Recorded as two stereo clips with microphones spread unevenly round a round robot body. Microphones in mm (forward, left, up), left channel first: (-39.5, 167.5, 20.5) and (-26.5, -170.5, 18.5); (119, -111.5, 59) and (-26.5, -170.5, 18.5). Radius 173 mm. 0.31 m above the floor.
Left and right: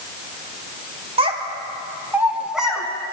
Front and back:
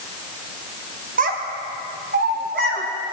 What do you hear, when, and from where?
1.2 s a child speaking: 160° right, 1.5 m; by 2.9 s straight behind, 2 m